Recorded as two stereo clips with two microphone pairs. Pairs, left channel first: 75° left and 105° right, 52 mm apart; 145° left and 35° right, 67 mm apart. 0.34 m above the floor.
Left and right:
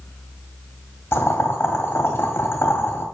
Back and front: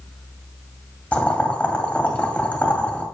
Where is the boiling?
80° left, 1.9 m.